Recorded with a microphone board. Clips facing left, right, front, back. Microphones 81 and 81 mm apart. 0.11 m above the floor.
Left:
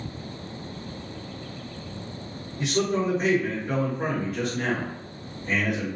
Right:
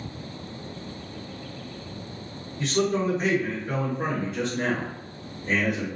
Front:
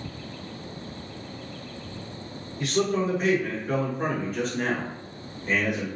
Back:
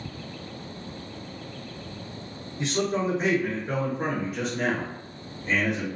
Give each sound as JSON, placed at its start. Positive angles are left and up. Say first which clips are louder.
{"t": 2.6, "sound": "a man speaking", "louder": "even, front 1 dB", "azimuth_deg": 145, "distance_m": 1.4}